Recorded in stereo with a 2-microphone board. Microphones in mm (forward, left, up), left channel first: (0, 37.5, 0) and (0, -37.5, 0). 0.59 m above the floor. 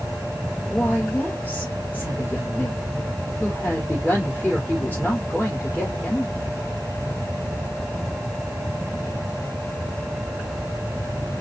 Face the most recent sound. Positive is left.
turn(degrees=25)  # may be behind; listen again after turning